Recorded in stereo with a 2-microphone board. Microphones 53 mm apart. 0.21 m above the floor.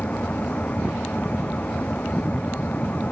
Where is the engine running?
30° left (ahead or behind).